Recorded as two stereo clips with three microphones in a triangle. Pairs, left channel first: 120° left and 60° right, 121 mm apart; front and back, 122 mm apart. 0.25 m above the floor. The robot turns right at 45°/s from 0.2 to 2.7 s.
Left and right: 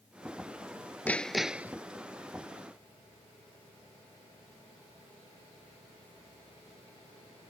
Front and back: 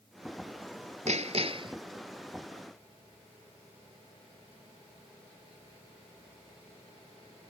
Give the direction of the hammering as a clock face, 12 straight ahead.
5 o'clock.